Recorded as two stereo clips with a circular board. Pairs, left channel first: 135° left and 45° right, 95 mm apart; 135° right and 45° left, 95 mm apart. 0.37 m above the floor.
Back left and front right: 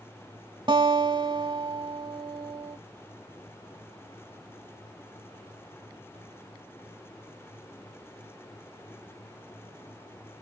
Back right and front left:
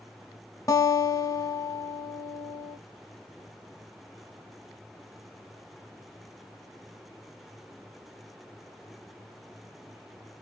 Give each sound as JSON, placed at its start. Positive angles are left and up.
{"t": 0.7, "sound": "a guitar", "azimuth_deg": -80, "distance_m": 1.2}